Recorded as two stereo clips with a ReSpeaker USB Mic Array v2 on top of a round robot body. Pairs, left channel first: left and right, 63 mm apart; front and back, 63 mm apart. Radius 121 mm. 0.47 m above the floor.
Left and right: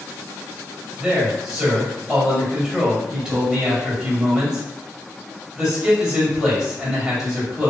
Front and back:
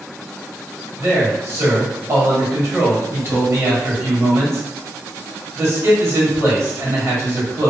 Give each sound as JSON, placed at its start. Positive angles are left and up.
{"t": 1.0, "sound": "a man speaking", "azimuth_deg": -170, "distance_m": 1.8}